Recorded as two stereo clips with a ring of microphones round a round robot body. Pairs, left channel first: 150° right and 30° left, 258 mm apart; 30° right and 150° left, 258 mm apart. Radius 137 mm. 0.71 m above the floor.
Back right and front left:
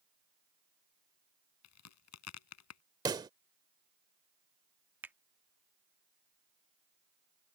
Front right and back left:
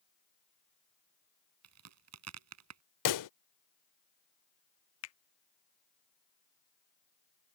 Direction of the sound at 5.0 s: 55° right.